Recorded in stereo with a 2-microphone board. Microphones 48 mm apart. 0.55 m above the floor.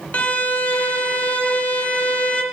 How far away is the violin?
About 0.7 m.